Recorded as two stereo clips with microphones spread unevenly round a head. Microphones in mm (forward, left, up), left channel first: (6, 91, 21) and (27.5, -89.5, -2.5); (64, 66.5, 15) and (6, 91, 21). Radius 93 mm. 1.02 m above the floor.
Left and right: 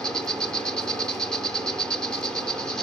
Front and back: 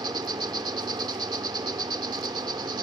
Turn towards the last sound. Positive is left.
turn(degrees=180)